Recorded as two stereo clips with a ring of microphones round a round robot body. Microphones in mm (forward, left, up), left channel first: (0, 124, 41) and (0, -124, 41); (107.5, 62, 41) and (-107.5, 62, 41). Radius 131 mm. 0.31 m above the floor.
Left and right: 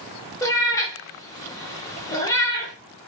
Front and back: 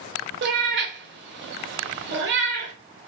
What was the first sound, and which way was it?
A cat meowing, 165° left.